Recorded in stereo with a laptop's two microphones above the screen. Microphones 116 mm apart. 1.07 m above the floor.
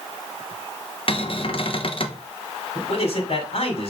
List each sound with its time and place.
1.1 s a cupboard door: 50° left (ahead or behind), 0.9 m
2.8 s a man speaking: 60° left (ahead or behind), 2.5 m